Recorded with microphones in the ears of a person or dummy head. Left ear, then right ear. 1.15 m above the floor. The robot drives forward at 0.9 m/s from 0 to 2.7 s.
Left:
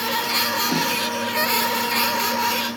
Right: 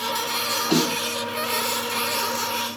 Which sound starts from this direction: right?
A snare drum, at 0.7 s.